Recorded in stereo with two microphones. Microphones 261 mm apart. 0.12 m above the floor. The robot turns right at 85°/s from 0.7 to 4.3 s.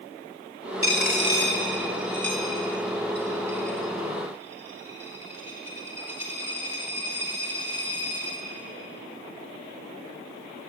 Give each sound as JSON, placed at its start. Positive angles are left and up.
{"t": 0.8, "sound": "a dropped coin", "side_deg": 55, "distance_m": 4.5}